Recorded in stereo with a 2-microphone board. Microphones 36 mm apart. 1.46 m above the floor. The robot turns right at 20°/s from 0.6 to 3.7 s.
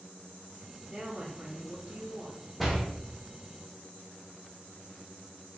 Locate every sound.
0.9 s a woman speaking: 155° right, 1.9 m; by 2.5 s 125° right, 1.9 m
2.6 s a door slam: centre (ahead or behind), 0.7 m; by 2.8 s 5° left (ahead or behind), 0.7 m